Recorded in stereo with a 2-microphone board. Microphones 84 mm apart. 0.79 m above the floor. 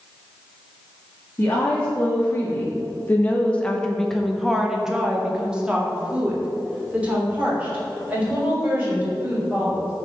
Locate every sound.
1.4 s a woman speaking: 25° left (ahead or behind), 2.0 m; by 9.9 s 20° right (ahead or behind), 5 m